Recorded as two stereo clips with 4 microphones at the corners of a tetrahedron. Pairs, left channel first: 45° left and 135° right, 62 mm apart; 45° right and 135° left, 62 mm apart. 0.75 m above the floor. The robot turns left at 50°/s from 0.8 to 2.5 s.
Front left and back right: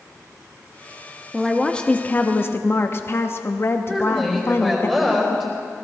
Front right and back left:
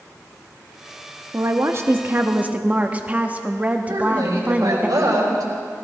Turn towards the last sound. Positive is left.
turn(degrees=140)